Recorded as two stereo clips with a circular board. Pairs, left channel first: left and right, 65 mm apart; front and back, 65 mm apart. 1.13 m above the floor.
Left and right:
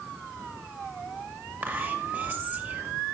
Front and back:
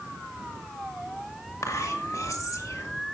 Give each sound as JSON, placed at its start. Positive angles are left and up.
{"t": 1.6, "sound": "whispering", "azimuth_deg": -30, "distance_m": 2.0}